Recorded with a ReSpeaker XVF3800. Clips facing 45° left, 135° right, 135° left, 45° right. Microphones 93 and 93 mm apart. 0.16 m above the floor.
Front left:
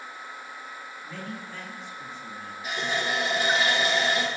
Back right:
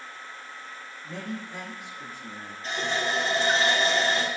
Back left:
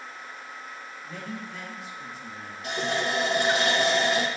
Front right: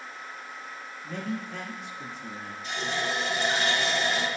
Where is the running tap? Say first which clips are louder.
Back right 1 dB, back left 3 dB; 125° left, 4 m.